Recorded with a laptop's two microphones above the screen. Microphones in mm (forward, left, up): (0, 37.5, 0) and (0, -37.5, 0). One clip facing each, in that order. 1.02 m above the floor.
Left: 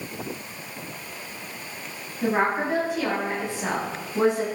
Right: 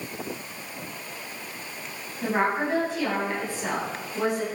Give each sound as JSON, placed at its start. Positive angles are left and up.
{"t": 2.2, "sound": "a woman speaking", "side_deg": 15, "distance_m": 7.0}